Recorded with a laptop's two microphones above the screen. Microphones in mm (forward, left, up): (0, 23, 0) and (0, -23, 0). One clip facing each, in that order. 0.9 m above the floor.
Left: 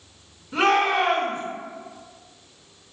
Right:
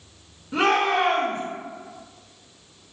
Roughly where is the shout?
Right.